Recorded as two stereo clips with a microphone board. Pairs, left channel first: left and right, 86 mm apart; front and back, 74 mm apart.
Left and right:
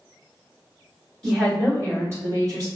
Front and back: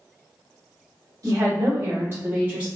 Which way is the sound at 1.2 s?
170° right.